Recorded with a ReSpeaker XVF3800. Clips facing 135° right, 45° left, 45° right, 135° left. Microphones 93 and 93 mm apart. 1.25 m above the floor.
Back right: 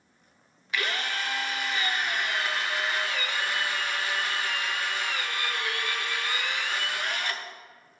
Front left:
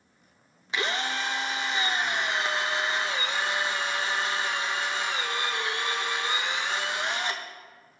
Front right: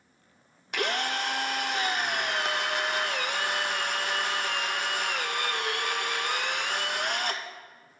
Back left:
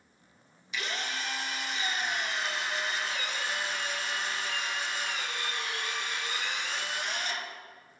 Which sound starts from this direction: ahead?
A drill, at 0.7 s.